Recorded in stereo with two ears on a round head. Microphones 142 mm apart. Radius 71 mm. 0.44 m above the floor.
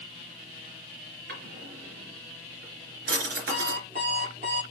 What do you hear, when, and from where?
1.3 s a drawer: 65° right (ahead or behind), 3.5 m
3.5 s an alarm clock: 45° right (ahead or behind), 6 m